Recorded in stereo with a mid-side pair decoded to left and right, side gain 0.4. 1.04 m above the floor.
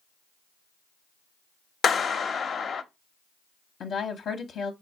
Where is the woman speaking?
65° left, 0.6 m.